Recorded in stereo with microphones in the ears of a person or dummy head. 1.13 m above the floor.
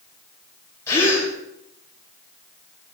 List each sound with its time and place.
0.9 s a gasp: 20° left (ahead or behind), 5 m